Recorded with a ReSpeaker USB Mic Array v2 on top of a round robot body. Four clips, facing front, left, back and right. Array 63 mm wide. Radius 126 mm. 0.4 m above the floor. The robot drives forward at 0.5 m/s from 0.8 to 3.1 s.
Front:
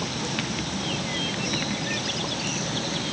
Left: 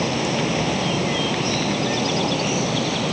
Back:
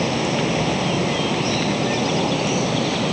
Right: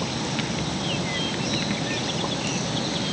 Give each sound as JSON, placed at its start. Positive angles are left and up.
{"t": 0.0, "sound": "running water", "azimuth_deg": 145}